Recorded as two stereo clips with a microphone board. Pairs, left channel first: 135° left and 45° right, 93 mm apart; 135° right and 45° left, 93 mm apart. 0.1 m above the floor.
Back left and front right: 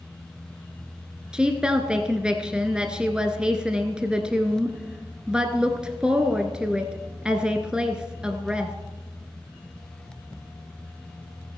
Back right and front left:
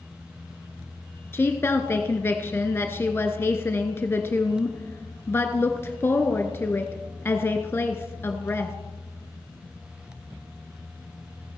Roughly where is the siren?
No siren in this recording.